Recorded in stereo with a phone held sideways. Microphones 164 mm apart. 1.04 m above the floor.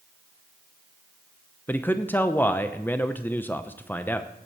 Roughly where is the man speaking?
Centre.